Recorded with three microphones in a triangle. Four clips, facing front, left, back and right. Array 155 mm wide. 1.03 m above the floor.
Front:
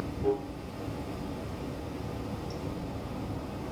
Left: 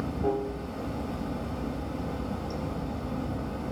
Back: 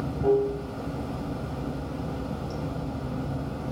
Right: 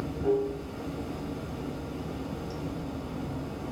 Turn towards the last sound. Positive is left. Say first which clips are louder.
# right 2 dB, back 7 dB
turn(degrees=145)